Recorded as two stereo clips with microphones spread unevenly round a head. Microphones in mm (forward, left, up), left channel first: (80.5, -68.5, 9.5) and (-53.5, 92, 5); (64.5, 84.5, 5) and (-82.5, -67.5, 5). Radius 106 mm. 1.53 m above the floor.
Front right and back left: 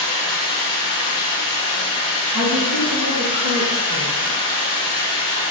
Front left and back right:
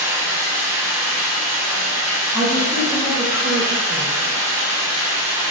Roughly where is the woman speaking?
Behind left.